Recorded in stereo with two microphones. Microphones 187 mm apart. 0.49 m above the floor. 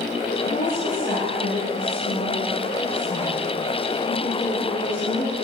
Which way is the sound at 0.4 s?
50° left (ahead or behind).